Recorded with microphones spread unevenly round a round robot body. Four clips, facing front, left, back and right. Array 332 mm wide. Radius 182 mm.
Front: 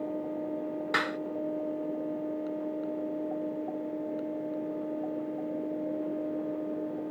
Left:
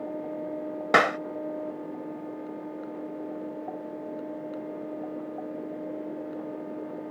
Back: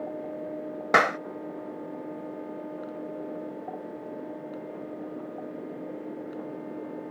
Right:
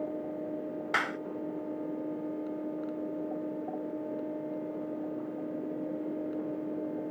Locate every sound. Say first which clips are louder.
0.9 s a clap: left 12 dB, back 11 dB; 125° left